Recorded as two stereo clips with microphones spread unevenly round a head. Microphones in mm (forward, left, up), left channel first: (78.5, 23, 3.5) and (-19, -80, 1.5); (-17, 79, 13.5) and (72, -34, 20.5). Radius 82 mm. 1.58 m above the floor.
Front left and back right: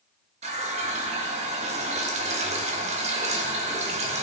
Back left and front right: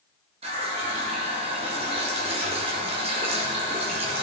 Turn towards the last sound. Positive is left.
turn(degrees=-100)